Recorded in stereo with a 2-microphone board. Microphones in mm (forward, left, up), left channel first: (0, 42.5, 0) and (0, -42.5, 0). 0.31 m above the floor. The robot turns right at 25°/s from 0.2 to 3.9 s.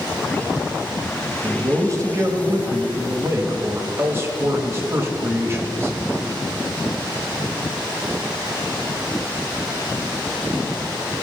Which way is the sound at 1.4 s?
115° right.